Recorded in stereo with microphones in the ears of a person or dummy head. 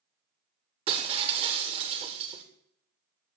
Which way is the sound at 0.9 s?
30° right (ahead or behind).